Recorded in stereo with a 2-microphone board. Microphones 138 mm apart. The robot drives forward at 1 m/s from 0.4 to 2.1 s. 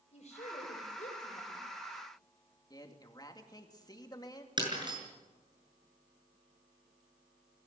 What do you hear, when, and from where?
0.1 s a woman speaking: 50° left (ahead or behind), 6 m; by 1.6 s 65° left (ahead or behind), 5.5 m
2.7 s a man speaking: 30° left (ahead or behind), 2.5 m
4.6 s breaking glass: 35° right (ahead or behind), 7 m